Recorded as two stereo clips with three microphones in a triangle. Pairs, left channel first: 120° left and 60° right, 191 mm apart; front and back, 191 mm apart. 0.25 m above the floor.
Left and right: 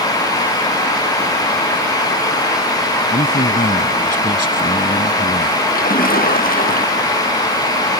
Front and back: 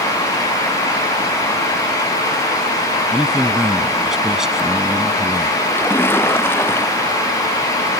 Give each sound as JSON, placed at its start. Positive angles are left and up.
{"t": 3.1, "sound": "a man speaking", "azimuth_deg": 95}
{"t": 5.7, "sound": "a splash", "azimuth_deg": 80}